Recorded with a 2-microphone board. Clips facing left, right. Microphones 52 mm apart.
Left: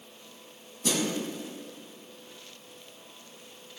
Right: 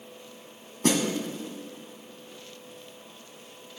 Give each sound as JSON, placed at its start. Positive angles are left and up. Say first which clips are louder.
{"t": 0.8, "sound": "a snare drum", "louder": "right 4 dB", "side_deg": -55, "distance_m": 1.6}